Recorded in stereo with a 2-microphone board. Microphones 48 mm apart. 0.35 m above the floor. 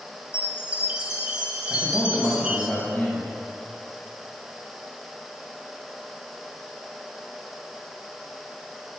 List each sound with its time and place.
0.3 s a chime: 20° right (ahead or behind), 1.2 m
1.7 s a man speaking: 20° left (ahead or behind), 2 m